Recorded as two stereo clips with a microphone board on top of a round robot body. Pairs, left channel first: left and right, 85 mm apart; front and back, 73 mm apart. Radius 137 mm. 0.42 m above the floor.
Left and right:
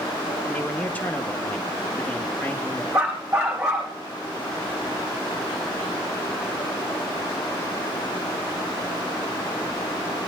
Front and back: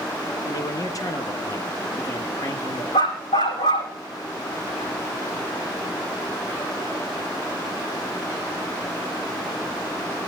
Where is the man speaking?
20° left, 1.7 m.